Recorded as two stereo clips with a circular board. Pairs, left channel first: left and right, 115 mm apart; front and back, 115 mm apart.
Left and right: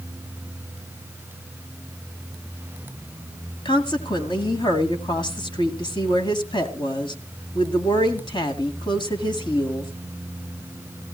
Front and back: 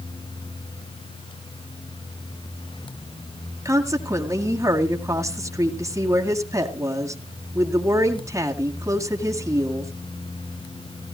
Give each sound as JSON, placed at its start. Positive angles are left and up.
{"t": 3.6, "sound": "a woman speaking", "azimuth_deg": 125, "distance_m": 2.0}